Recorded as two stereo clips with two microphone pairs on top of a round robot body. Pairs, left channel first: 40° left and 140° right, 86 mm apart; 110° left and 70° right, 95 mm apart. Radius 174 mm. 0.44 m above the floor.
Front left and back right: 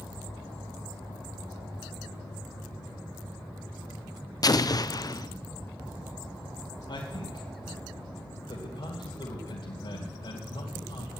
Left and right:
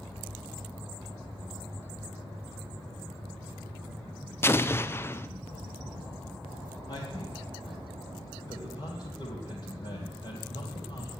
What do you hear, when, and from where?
4.4 s an explosion: 60° left, 0.8 m
6.9 s a man speaking: 75° left, 2.5 m